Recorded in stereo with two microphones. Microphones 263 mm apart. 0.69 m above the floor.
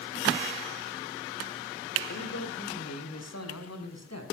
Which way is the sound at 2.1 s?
75° left (ahead or behind).